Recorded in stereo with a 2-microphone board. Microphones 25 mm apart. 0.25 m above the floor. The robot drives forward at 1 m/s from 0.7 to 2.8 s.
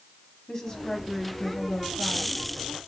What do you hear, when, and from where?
0.5 s a woman speaking: 20° left (ahead or behind), 1.7 m; by 2.4 s 25° left (ahead or behind), 1.4 m